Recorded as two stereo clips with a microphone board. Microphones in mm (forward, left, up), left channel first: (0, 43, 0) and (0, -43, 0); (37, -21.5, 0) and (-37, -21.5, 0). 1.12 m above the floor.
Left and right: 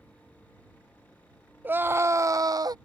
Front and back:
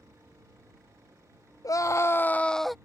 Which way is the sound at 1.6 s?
25° right.